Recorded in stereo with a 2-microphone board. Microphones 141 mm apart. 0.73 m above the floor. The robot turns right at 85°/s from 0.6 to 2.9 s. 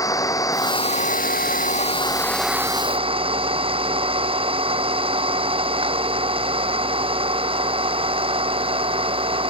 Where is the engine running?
25° left; by 9.5 s 140° right.